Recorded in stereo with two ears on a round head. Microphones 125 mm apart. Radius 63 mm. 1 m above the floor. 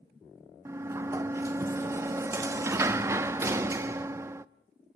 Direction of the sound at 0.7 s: 20° right (ahead or behind).